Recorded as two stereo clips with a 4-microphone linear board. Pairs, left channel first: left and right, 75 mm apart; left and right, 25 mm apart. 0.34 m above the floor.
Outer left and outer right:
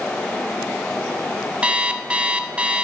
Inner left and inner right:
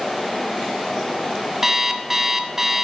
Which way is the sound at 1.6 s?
15° right (ahead or behind).